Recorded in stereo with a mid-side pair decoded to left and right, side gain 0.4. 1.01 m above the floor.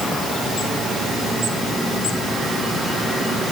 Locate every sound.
Only background noise.